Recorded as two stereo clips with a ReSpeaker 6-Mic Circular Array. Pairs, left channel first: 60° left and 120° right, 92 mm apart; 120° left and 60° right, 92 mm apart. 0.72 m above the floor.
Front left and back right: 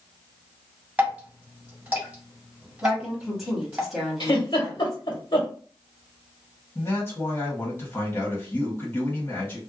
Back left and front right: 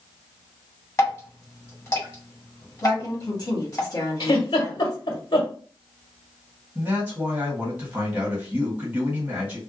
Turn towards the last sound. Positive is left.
turn(degrees=10)